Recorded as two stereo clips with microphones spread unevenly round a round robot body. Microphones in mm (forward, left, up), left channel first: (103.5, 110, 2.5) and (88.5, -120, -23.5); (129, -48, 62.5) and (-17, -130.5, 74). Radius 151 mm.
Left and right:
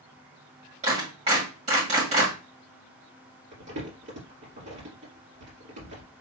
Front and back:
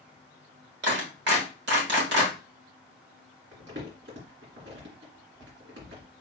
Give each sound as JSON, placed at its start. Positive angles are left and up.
{"t": 0.8, "sound": "a clap", "azimuth_deg": -160, "distance_m": 1.6}
{"t": 3.5, "sound": "crumpling", "azimuth_deg": -140, "distance_m": 2.5}